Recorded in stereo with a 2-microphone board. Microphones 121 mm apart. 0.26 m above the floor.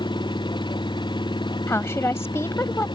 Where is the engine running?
40° left (ahead or behind).